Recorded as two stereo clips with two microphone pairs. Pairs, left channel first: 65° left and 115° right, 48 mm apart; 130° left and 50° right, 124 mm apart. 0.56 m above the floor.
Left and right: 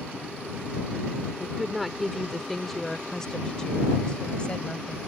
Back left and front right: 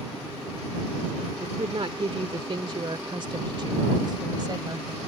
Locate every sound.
1.4 s a woman speaking: 40° right; by 5.0 s straight ahead